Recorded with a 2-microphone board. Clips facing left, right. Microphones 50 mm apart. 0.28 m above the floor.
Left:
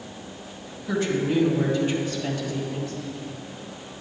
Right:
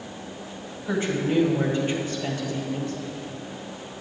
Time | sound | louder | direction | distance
0.9 | a woman speaking | left 1 dB | 25° right (ahead or behind) | 1.5 m